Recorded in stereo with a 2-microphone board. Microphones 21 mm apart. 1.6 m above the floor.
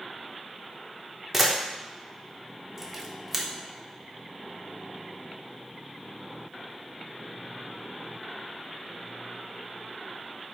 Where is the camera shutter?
10° right (ahead or behind), 0.8 m.